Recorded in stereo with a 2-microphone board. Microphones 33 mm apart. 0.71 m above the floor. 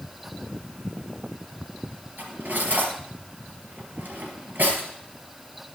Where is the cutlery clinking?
55° right (ahead or behind), 4 m.